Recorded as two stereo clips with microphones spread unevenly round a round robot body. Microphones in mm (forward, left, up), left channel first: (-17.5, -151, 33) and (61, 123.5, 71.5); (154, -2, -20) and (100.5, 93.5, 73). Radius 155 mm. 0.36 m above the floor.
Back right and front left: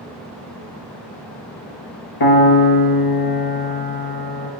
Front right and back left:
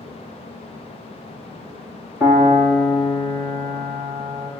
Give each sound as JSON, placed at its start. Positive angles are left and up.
{"t": 2.2, "sound": "a piano", "azimuth_deg": -125, "distance_m": 1.4}